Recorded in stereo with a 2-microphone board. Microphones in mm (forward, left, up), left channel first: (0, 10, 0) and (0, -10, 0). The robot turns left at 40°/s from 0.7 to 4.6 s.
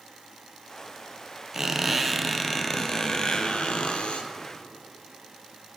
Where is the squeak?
150° right, 0.7 m; by 4.3 s 100° left, 0.7 m.